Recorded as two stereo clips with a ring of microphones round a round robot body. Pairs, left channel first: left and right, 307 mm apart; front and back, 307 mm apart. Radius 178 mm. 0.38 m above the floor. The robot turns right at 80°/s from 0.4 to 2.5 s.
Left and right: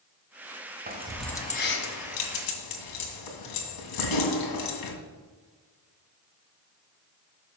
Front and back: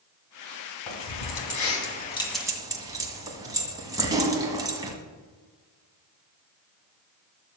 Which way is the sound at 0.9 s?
30° right.